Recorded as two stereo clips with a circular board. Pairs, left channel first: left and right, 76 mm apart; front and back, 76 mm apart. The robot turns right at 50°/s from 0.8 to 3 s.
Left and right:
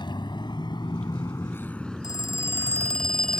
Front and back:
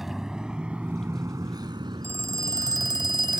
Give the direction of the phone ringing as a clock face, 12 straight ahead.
8 o'clock.